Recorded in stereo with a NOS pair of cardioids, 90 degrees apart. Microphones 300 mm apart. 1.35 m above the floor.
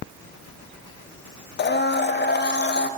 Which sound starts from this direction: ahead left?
A blender, at 1.6 s.